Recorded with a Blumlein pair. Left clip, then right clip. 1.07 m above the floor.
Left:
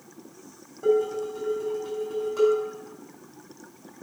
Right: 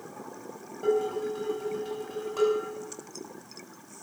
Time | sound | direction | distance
0.8 | dishes clattering | 5° right | 5.5 m